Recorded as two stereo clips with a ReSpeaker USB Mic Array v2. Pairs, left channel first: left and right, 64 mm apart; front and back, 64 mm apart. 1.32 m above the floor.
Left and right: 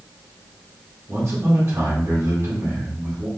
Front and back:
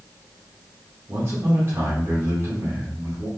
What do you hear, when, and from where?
1.1 s a man speaking: 135° right, 1.9 m